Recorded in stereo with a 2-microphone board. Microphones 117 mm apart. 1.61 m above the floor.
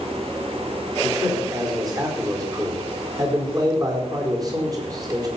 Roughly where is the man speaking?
Right.